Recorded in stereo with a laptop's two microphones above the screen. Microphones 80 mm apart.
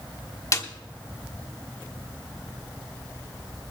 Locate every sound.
0.5 s a snare drum: 40° left (ahead or behind), 1.2 m